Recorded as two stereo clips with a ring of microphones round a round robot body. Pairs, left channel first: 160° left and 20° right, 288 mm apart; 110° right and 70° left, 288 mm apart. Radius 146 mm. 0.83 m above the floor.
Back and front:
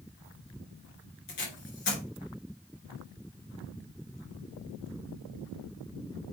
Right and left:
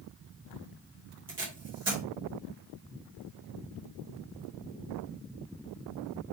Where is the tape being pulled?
140° left, 4 m.